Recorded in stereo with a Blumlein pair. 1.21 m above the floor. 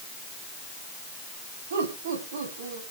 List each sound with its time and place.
1.7 s laughter: 60° right, 7.5 m; by 2.8 s 65° right, 8 m